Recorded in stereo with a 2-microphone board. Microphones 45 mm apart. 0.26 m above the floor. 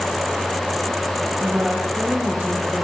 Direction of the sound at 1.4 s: 35° right (ahead or behind).